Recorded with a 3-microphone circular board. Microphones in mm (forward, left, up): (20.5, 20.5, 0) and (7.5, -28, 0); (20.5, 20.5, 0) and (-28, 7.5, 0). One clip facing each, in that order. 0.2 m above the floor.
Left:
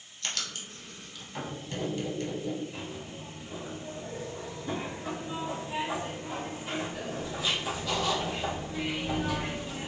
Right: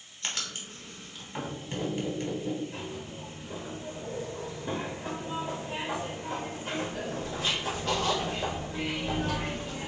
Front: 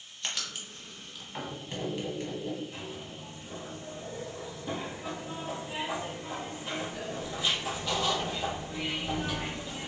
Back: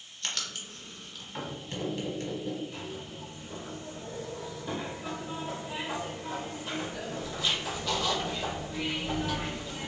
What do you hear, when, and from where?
0.2 s writing: 55° right, 1.0 m
2.7 s a zipper: 60° right, 1.1 m